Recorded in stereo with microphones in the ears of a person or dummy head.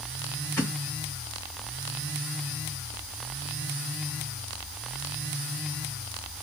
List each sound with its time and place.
0.6 s a thud: 10° left (ahead or behind), 2.5 m